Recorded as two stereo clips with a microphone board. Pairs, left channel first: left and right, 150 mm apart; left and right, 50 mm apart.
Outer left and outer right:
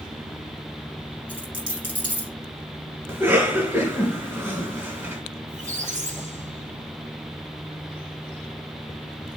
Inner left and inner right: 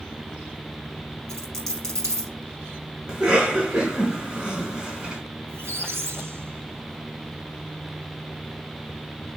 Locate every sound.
1.3 s a dropped coin: 75° right (ahead or behind), 4 m
3.1 s a cough: 15° right (ahead or behind), 2 m
5.5 s a squeak: 55° right (ahead or behind), 1.2 m